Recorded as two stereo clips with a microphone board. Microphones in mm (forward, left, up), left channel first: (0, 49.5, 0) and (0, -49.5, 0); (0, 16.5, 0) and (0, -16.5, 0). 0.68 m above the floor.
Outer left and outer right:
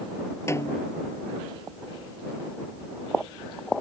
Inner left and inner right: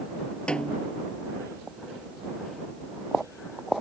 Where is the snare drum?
30° left (ahead or behind).